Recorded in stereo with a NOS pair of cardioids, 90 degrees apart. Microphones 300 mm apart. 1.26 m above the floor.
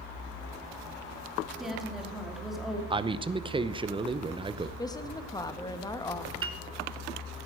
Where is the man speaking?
15° right, 0.7 m.